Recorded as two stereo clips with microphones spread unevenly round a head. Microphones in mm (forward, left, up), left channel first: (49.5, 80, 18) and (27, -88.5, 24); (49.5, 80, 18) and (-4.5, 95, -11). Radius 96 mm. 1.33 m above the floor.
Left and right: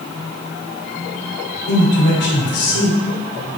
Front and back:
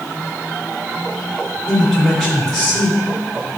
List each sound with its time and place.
1.7 s a man speaking: 65° left, 3.5 m